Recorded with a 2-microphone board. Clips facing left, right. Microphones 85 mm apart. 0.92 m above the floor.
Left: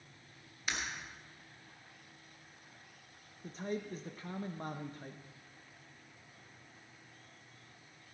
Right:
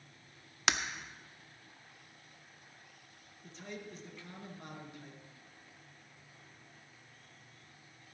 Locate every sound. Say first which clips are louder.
0.7 s breaking glass: right 7 dB; 75° right (ahead or behind), 0.8 m
3.4 s a man speaking: left 7 dB; 40° left (ahead or behind), 0.8 m